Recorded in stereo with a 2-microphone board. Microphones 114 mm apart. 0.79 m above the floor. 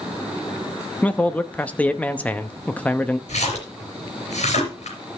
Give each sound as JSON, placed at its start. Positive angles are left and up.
{"t": 1.0, "sound": "a man speaking", "side_deg": 15, "distance_m": 0.8}
{"t": 3.3, "sound": "a splash", "side_deg": 85, "distance_m": 4.0}